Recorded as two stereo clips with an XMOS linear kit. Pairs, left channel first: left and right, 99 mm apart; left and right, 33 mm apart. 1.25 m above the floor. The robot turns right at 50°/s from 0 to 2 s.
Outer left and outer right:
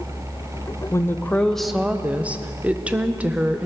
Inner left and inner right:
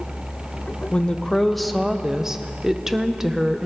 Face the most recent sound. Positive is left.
turn(degrees=-160)